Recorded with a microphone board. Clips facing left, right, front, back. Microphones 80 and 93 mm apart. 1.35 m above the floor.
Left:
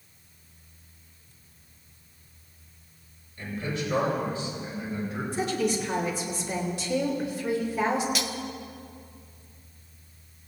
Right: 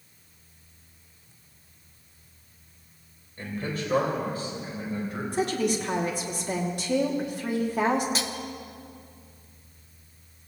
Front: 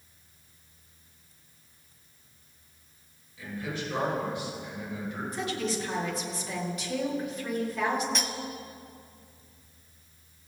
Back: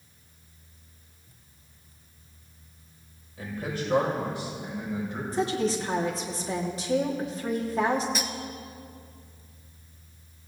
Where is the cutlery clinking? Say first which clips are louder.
Even, back 1 dB; 95° right, 0.8 m.